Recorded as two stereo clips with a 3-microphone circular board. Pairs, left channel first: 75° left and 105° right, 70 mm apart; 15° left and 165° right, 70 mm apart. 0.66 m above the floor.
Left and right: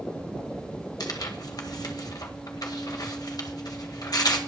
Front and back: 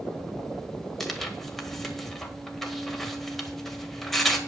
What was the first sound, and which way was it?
Tearing paper, 100° left.